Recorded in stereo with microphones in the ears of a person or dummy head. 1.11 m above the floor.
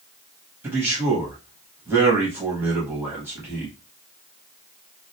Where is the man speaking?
10° right (ahead or behind), 0.9 m.